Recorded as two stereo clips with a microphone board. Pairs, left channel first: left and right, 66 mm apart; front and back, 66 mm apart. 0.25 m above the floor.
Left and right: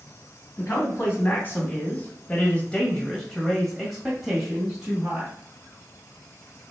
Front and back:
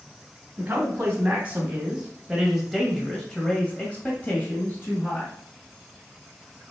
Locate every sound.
0.6 s a man speaking: 130° left, 2.5 m; by 5.3 s 30° right, 2.0 m